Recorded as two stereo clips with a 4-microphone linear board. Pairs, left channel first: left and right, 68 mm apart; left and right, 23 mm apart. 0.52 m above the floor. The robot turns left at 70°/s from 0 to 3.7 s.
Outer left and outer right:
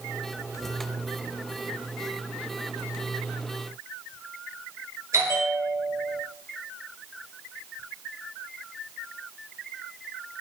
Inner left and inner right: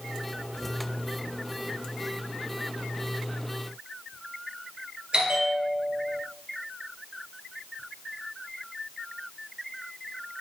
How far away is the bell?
About 1.6 m.